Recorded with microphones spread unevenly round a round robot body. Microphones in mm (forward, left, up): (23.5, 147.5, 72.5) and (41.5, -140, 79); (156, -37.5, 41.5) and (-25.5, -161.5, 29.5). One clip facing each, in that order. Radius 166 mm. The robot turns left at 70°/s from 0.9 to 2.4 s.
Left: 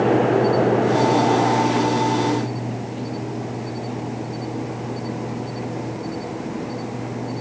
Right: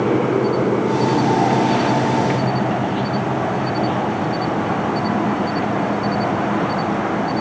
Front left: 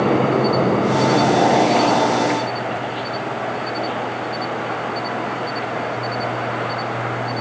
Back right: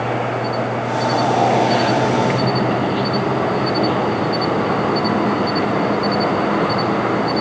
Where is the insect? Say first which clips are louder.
Even, front left 6 dB; 5° right; by 7.4 s 110° right.